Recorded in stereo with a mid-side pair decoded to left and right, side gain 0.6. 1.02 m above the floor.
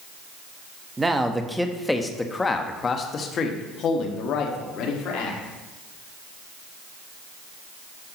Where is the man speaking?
15° right, 1.2 m; by 5.4 s 65° left, 2 m.